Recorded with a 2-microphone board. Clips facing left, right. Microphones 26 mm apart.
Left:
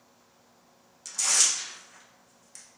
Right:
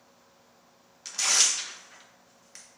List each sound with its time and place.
1.1 s tearing paper: 30° right (ahead or behind), 0.6 m